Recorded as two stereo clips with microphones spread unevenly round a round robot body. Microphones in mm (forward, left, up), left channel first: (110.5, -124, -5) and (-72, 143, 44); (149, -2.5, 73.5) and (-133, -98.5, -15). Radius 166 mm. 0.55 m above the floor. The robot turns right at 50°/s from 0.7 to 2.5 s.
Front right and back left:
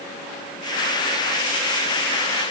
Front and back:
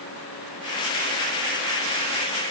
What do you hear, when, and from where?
Only background noise.